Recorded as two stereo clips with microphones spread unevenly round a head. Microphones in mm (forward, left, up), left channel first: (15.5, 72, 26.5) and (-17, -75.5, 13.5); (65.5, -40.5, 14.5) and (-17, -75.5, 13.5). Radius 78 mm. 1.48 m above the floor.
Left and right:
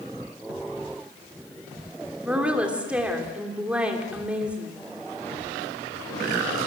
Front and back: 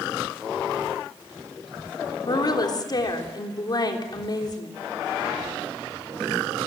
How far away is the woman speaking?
About 3.5 m.